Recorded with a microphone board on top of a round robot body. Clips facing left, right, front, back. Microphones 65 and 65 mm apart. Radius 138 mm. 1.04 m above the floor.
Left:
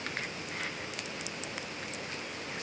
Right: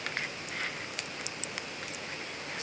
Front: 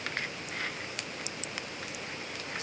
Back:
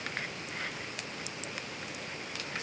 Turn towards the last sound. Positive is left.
No sound to turn to.